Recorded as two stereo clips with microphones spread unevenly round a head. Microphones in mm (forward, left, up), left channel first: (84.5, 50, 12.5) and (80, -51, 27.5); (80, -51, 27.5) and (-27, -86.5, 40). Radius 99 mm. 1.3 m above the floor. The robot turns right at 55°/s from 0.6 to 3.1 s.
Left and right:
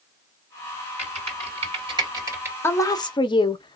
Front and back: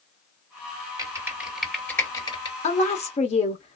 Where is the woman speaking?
25° left, 0.9 m; by 3.8 s 50° left, 0.9 m.